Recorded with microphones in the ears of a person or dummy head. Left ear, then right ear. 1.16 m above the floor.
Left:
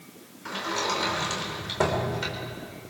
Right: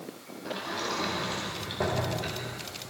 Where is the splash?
I don't hear a splash.